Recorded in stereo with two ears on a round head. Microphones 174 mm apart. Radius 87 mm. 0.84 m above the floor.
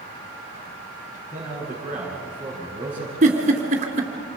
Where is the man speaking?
10° right (ahead or behind), 7 m.